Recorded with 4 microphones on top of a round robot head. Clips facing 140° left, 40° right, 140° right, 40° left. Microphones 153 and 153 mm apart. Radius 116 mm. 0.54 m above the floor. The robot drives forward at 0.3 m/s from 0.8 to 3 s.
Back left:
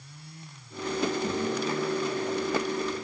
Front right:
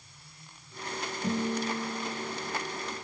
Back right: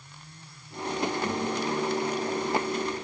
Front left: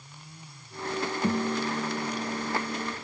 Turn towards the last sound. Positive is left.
turn(degrees=55)